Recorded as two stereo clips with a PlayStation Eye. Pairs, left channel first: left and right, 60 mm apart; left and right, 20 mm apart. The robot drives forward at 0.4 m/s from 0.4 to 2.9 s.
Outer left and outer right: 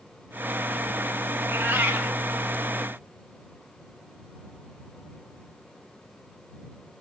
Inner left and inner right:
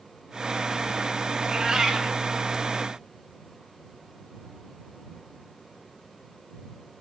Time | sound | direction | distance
1.4 | a cat meowing | 35° right (ahead or behind) | 0.9 m